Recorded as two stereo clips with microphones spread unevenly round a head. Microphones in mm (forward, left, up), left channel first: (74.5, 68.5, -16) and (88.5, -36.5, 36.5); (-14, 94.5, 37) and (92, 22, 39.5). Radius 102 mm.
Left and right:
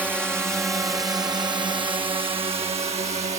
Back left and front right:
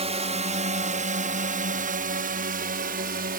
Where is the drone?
Straight ahead; by 3.4 s 50° right.